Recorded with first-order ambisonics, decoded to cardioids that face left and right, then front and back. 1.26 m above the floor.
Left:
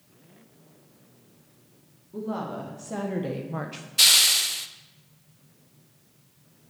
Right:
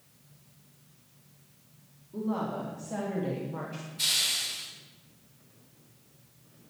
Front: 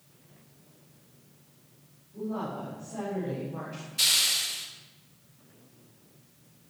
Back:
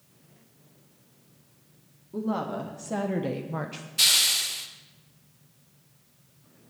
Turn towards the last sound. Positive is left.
turn(degrees=105)